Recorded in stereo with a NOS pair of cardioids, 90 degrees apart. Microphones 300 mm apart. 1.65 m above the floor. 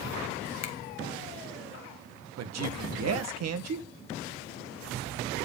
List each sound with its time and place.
0.6 s a finger snap: 55° left, 1.6 m
2.4 s a man speaking: 55° right, 1.6 m